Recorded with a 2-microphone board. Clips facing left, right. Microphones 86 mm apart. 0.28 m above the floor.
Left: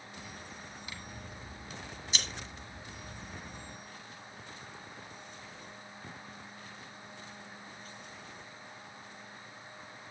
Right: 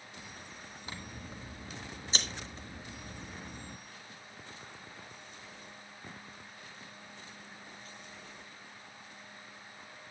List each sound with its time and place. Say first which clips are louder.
0.9 s scissors: right 1 dB; 35° right (ahead or behind), 1.6 m